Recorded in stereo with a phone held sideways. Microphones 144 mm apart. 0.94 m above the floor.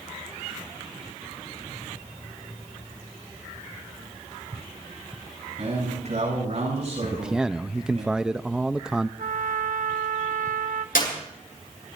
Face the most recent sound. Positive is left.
turn(degrees=85)